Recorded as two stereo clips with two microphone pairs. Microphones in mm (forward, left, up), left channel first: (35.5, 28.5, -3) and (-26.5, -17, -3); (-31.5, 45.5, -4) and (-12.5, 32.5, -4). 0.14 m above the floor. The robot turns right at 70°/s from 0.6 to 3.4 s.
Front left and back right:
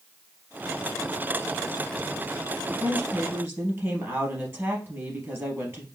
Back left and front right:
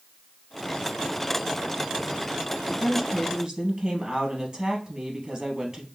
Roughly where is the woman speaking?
Behind right.